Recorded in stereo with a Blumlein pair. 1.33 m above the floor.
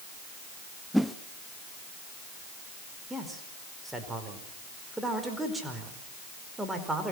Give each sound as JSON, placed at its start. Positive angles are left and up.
{"t": 0.9, "sound": "a whoosh", "azimuth_deg": 0, "distance_m": 1.0}
{"t": 3.1, "sound": "a man speaking", "azimuth_deg": -5, "distance_m": 5.0}